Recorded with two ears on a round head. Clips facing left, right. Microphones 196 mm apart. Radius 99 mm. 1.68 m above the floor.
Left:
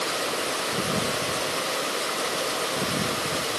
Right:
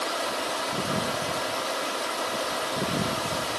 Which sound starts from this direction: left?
Running water, at 0.0 s.